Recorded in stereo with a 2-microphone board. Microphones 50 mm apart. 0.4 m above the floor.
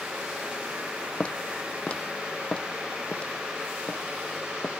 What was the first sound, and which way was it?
Footsteps, 25° left (ahead or behind).